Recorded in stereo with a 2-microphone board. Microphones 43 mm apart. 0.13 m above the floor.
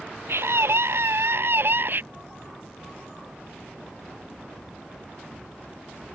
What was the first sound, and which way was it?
A scream, 65° right (ahead or behind).